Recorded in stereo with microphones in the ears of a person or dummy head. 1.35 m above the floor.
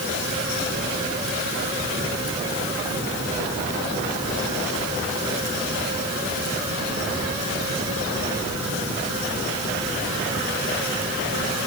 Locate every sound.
Only background noise.